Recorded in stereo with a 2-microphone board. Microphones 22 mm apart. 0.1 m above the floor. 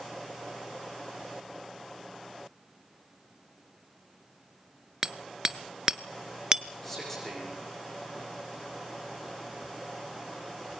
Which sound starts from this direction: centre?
A man speaking, at 6.8 s.